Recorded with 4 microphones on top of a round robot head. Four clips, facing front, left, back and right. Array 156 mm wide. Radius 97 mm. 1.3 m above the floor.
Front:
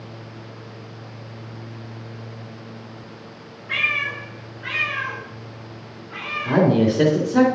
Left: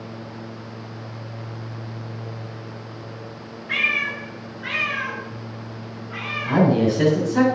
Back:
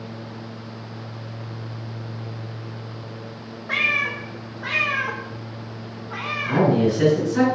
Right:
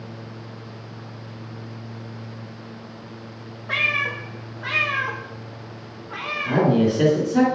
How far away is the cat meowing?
About 0.8 m.